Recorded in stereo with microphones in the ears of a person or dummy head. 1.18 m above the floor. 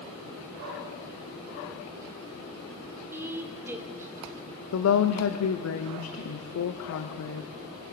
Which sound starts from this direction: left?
A woman speaking, at 4.7 s.